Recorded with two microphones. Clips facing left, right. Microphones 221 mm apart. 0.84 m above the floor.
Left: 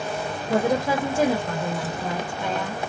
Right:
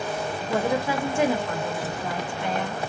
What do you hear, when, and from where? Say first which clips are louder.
0.5 s a woman speaking: left 3 dB; 40° left (ahead or behind), 1.3 m